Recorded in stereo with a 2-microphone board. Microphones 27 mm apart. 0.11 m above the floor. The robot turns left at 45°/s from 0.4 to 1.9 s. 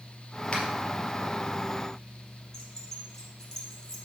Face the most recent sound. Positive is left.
turn(degrees=20)  # may be behind; listen again after turning